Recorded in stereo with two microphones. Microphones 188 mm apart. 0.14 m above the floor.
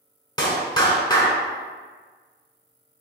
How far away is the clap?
About 1.2 m.